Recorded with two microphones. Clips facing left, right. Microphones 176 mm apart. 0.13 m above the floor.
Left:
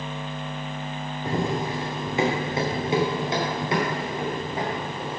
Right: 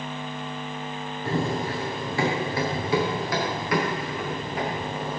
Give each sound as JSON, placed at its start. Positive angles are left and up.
{"t": 1.2, "sound": "running footsteps", "side_deg": 15, "distance_m": 3.0}